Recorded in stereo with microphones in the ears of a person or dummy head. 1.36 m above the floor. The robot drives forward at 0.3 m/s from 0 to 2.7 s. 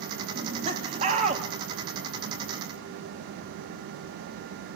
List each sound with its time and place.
0.3 s laughter: 35° right (ahead or behind), 3.5 m; by 1.4 s 40° right (ahead or behind), 3 m